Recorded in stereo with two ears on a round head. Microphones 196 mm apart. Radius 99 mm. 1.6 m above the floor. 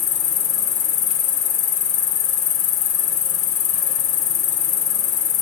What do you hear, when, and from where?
0.0 s an insect: 65° left (ahead or behind), 1.9 m